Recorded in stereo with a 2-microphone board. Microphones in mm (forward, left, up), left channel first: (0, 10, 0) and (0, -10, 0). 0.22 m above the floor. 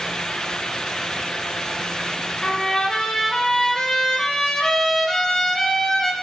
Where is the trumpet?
40° left (ahead or behind), 2.5 m.